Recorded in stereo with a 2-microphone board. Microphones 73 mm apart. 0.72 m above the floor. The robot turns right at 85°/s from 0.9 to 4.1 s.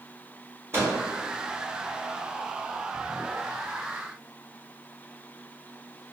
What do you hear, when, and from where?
0.7 s a microwave: 35° right (ahead or behind), 1.2 m